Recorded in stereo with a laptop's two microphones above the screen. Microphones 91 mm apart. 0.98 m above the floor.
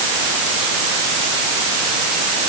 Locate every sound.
Only background noise.